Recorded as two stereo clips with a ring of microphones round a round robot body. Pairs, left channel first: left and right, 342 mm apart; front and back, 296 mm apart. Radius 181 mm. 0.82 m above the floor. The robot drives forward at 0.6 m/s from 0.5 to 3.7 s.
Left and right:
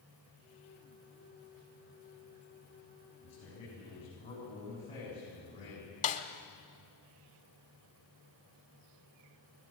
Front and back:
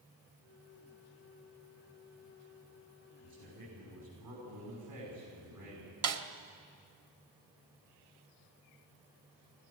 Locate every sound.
3.2 s a man speaking: 165° left, 7 m
6.0 s a snare drum: 160° left, 1.3 m